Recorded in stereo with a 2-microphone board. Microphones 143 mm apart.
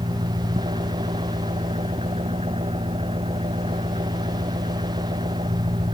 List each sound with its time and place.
0.0 s an engine running: 45° right (ahead or behind)